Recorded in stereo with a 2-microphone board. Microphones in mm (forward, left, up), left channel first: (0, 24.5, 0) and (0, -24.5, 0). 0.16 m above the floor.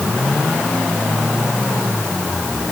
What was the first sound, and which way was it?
Only background noise.